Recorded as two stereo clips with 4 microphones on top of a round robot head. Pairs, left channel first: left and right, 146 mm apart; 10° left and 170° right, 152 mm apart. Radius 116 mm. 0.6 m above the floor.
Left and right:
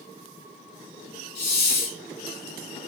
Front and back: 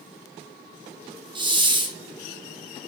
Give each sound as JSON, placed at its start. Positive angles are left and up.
{"t": 1.4, "sound": "a hiss", "azimuth_deg": 125, "distance_m": 0.7}